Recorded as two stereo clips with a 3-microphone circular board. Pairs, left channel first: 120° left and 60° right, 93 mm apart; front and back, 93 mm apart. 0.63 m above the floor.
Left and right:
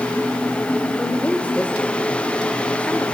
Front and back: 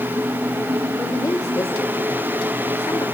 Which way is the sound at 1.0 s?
45° left.